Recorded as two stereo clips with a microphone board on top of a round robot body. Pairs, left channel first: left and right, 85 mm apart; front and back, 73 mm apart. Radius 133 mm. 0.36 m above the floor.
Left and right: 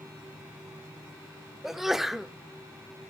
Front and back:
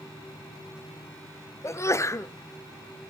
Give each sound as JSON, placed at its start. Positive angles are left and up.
{"t": 1.6, "sound": "a sneeze", "azimuth_deg": -5, "distance_m": 1.1}